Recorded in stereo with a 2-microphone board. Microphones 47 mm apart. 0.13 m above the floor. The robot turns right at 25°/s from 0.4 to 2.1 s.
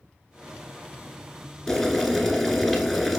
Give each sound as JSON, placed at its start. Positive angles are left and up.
{"t": 1.7, "sound": "boiling", "side_deg": 10, "distance_m": 0.9}